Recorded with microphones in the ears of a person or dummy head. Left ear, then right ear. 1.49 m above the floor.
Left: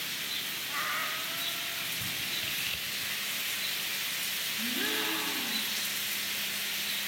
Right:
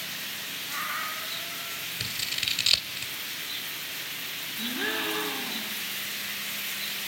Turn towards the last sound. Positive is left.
turn(degrees=-15)  # may be behind; listen again after turning